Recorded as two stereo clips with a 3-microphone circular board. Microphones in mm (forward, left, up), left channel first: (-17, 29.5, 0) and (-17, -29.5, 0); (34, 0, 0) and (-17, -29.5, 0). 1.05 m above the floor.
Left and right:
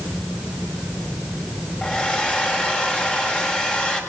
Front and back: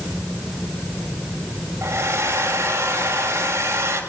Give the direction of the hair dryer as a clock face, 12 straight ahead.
7 o'clock.